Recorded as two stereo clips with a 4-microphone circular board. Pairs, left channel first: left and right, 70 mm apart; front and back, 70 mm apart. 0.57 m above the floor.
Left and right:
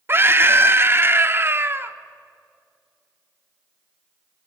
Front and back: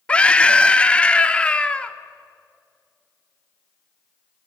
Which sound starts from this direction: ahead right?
A scream, at 0.1 s.